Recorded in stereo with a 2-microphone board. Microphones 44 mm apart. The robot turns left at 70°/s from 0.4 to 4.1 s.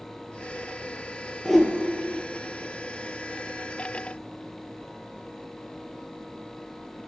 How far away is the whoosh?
About 0.7 m.